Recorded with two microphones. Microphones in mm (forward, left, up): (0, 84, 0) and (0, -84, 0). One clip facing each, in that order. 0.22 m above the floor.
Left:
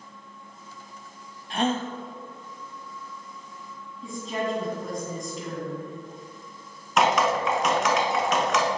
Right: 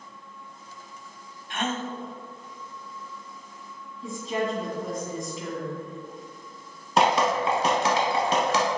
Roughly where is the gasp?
Left.